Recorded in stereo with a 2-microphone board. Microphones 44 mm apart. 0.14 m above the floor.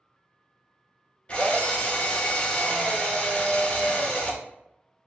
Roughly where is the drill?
Left.